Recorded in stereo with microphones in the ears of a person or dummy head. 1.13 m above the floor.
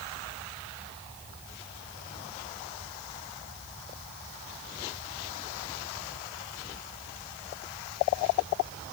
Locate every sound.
Only background noise.